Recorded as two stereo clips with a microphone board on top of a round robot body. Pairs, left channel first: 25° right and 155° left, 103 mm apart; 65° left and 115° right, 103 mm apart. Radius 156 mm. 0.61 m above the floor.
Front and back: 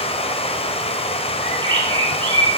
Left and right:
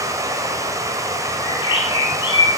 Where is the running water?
50° right, 1.7 m.